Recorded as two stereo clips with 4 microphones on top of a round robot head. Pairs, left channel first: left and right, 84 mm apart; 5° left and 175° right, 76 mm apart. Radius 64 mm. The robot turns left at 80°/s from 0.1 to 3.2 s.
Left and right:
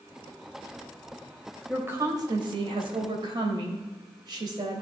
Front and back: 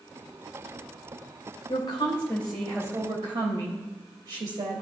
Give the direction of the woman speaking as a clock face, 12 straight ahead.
12 o'clock.